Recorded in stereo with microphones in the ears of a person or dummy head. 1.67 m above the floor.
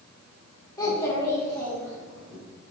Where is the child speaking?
20° left (ahead or behind), 1.1 m; by 2.4 s 5° left (ahead or behind), 2.0 m.